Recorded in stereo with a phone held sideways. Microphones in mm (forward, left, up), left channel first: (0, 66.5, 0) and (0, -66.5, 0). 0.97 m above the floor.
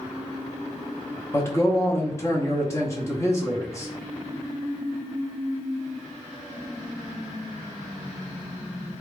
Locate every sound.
1.3 s a man speaking: 20° left (ahead or behind), 0.8 m